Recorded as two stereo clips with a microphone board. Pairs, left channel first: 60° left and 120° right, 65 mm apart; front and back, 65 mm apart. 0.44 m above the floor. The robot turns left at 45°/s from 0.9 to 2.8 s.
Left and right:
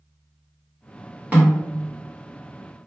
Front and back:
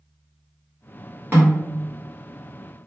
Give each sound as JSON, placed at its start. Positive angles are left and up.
{"t": 1.3, "sound": "a snare drum", "azimuth_deg": -165, "distance_m": 1.2}